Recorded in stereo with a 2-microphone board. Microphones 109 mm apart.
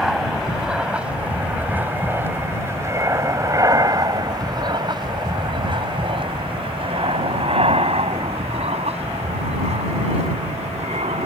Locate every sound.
0.0 s an aircraft: 5° right (ahead or behind); by 11.3 s 75° right (ahead or behind)